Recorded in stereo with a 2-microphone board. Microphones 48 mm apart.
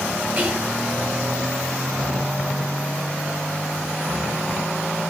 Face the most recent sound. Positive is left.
turn(degrees=-35)  # may be behind; listen again after turning